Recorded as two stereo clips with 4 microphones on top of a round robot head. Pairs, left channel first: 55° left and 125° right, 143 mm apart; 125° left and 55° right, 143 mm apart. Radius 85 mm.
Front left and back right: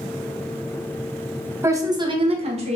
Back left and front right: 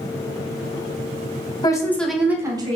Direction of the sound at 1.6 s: 170° left.